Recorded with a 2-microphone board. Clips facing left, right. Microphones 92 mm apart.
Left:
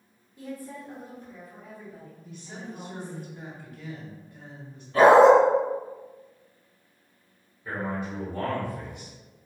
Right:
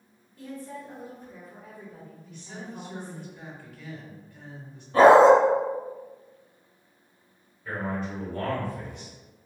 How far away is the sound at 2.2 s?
About 1.2 m.